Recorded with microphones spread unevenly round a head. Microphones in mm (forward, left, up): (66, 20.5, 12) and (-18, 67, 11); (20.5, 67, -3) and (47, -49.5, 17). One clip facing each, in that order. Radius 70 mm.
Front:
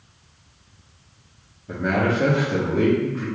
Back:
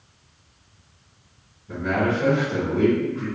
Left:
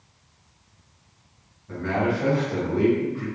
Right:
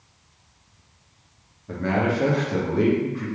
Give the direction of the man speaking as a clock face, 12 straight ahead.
2 o'clock.